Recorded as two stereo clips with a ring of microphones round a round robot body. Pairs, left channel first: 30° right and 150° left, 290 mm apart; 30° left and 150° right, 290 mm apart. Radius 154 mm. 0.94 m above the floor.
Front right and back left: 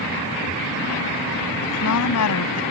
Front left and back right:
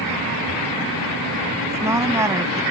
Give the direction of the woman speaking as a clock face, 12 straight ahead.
2 o'clock.